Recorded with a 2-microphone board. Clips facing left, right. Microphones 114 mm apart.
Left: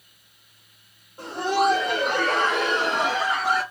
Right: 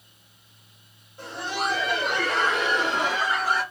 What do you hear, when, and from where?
1.2 s laughter: 40° left (ahead or behind), 1.7 m; by 3.6 s 75° left (ahead or behind), 2 m